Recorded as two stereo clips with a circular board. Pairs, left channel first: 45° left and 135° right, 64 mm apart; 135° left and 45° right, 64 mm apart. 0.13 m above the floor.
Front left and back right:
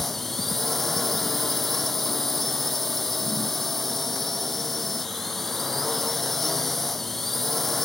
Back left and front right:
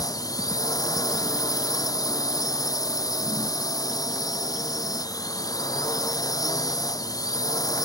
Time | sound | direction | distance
0.0 | a drone | 135° left | ?